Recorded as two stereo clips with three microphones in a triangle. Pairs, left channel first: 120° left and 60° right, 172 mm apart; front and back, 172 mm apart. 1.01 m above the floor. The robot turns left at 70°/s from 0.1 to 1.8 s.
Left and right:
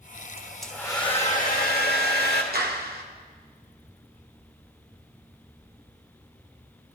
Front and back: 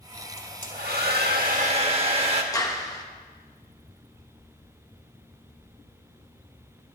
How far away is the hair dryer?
About 1.6 m.